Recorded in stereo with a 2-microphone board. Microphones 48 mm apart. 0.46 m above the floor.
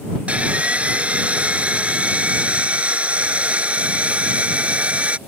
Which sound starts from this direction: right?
Sawing, at 0.3 s.